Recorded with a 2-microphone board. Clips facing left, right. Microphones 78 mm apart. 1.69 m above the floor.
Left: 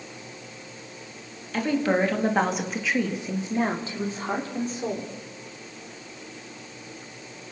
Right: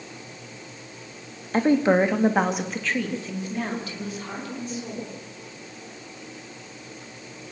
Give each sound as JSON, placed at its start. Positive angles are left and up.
{"t": 1.5, "sound": "a woman speaking", "side_deg": -30, "distance_m": 2.5}